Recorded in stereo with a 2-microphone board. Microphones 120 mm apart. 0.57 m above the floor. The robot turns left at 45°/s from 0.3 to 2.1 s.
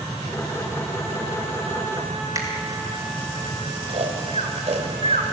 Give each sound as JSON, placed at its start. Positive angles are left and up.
{"t": 2.4, "sound": "a finger snap", "side_deg": -30, "distance_m": 4.0}
{"t": 3.9, "sound": "snoring", "side_deg": -65, "distance_m": 2.0}